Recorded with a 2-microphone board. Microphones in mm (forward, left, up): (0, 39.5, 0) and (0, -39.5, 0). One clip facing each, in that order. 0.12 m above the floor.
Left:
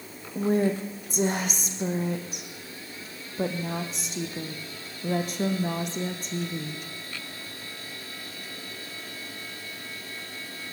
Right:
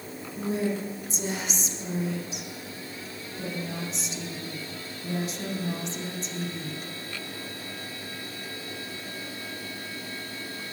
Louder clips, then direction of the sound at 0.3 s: Left 4 dB; 50° left (ahead or behind).